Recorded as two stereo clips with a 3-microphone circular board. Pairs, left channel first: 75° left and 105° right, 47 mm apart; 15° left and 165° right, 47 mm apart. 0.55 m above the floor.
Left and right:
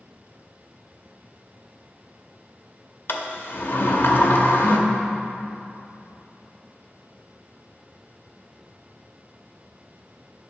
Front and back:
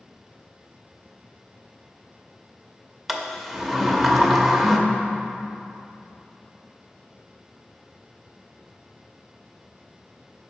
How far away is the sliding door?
About 0.6 m.